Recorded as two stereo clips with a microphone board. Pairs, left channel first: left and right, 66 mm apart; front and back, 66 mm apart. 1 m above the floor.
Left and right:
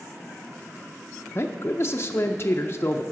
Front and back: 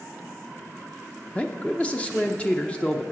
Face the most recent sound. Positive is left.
turn(degrees=60)